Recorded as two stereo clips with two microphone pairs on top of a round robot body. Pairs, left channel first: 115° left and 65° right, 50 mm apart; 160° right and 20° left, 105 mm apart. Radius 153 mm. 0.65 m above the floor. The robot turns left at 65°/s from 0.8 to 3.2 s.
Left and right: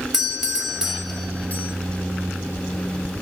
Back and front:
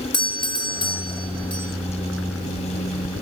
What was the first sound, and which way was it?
A doorbell, 135° right.